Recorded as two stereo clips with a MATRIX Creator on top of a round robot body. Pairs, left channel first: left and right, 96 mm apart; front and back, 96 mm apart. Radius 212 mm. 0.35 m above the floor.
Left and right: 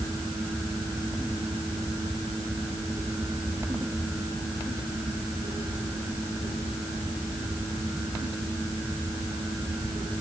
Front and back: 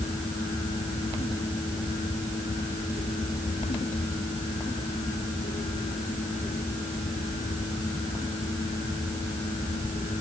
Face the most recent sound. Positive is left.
No sound to turn to.